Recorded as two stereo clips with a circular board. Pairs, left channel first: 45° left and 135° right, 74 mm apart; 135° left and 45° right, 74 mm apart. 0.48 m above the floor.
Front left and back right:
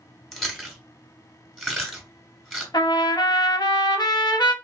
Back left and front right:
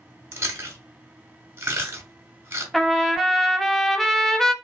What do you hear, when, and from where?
0.3 s chewing: 45° right, 1.2 m
2.7 s a trumpet: 45° left, 0.5 m